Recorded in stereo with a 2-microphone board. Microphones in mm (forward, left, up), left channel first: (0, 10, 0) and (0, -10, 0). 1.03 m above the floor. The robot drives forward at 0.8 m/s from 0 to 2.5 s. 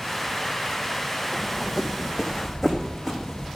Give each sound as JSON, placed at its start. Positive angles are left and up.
{"t": 1.3, "sound": "running footsteps", "side_deg": -20, "distance_m": 2.5}